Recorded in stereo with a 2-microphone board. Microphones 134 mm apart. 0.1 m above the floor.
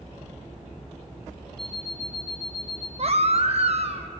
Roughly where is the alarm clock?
Left.